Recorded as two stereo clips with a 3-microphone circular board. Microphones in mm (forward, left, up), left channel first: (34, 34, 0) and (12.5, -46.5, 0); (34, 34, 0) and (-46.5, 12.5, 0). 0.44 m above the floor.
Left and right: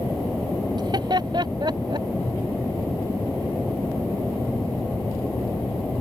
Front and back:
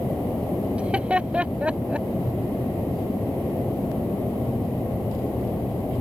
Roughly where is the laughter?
Right.